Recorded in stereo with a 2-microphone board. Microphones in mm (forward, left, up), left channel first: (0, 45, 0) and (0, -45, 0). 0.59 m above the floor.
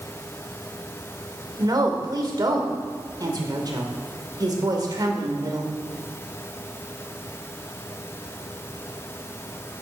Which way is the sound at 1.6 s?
45° right (ahead or behind).